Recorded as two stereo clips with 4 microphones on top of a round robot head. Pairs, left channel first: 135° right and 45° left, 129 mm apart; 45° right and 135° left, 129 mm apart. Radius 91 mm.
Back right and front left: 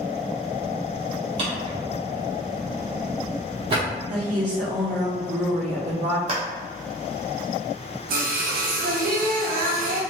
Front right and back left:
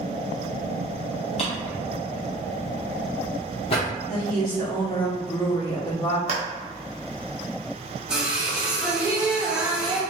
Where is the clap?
95° left, 1.1 m.